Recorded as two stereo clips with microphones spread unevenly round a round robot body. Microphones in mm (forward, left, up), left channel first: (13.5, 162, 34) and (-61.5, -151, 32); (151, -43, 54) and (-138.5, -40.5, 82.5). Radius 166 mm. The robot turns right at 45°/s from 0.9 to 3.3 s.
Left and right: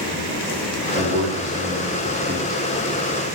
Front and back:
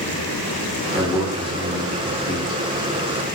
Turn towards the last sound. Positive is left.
turn(degrees=20)